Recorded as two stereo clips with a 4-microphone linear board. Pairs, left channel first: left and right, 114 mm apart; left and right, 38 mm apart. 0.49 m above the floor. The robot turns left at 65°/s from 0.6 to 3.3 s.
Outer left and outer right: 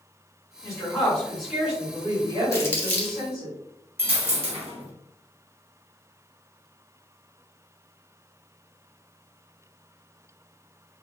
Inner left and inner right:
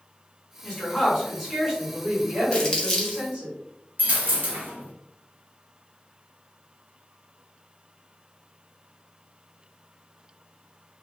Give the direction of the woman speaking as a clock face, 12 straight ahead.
10 o'clock.